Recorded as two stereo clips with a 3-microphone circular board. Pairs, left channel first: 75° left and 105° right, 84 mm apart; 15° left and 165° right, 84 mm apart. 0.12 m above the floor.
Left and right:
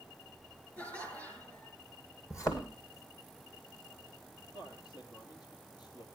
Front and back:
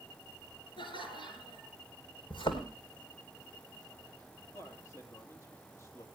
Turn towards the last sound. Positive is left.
turn(degrees=65)